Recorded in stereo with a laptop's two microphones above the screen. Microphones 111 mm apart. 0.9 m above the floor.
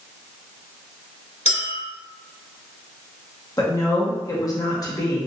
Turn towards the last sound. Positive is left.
turn(degrees=35)  # may be behind; listen again after turning